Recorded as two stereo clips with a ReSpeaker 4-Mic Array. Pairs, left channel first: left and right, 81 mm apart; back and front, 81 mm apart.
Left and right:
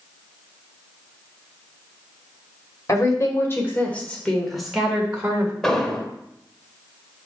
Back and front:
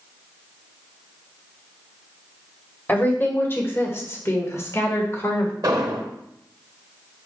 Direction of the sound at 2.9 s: 120° left.